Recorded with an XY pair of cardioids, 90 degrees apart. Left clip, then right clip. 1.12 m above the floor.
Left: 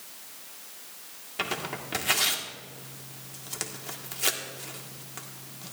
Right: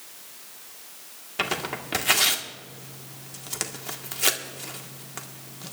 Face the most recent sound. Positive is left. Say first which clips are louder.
# right 4 dB
turn(degrees=-30)